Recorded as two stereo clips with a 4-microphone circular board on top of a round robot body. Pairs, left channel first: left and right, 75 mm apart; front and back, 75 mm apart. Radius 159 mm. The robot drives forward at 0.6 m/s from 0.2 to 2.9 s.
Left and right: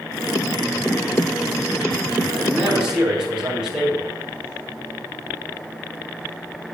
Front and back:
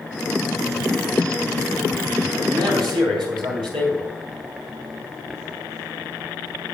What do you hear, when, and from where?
2.3 s a man speaking: 170° right, 5 m